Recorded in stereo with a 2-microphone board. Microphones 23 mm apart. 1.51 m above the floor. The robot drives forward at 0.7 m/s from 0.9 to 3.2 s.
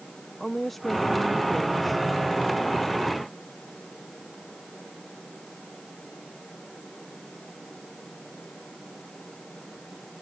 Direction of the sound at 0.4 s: 10° left (ahead or behind).